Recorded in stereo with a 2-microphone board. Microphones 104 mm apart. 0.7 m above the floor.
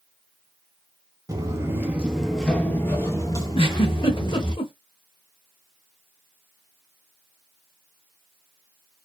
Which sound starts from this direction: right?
Footsteps, at 1.3 s.